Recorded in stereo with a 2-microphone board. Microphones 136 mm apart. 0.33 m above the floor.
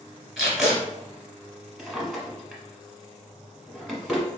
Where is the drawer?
Centre (ahead or behind), 1.0 m.